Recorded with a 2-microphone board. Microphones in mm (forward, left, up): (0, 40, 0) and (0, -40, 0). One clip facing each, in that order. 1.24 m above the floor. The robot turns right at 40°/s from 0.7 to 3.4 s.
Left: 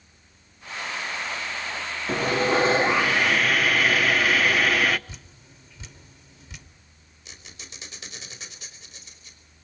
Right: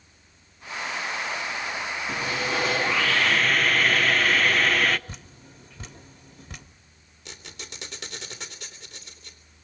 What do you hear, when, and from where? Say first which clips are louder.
2.1 s sawing: left 7 dB; 125° left, 0.7 m; by 5.0 s 175° left, 0.7 m
5.1 s dripping: right 3 dB; 50° right (ahead or behind), 1.5 m
7.2 s a squeak: right 4 dB; 75° right (ahead or behind), 3 m